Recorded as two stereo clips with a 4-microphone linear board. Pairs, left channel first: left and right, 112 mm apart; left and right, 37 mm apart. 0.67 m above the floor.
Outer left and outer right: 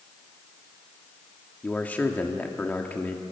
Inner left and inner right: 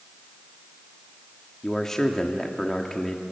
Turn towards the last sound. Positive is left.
turn(degrees=15)  # may be behind; listen again after turning